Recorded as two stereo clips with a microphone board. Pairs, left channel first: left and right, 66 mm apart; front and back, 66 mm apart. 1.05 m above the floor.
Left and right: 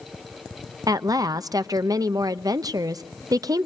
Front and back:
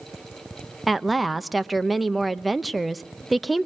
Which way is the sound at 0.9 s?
90° right.